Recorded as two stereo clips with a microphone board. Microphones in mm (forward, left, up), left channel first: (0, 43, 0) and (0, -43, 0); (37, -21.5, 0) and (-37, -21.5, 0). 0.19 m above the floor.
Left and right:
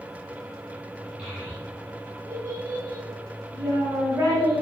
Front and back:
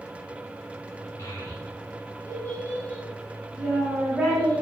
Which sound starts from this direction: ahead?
A child speaking, at 1.2 s.